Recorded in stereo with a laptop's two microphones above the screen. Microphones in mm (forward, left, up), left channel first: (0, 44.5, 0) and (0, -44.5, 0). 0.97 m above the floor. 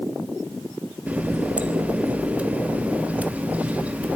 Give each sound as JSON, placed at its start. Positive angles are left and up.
{"t": 1.1, "sound": "a running tap", "side_deg": -15, "distance_m": 1.1}